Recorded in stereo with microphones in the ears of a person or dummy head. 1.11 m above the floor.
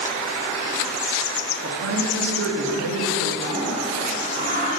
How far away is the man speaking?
About 1.4 m.